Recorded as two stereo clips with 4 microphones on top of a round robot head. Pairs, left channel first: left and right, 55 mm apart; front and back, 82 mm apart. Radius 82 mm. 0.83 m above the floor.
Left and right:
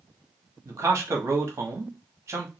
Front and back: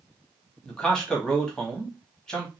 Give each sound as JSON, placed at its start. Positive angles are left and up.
{"t": 0.7, "sound": "a man speaking", "azimuth_deg": -80, "distance_m": 1.1}